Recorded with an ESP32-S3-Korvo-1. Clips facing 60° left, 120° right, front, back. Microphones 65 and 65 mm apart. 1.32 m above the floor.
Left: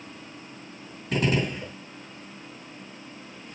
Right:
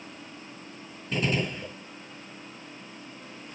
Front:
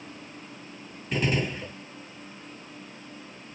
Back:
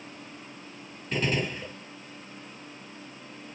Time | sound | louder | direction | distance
1.1 | a gunshot | left 3 dB, front 1 dB | 85° left | 2 m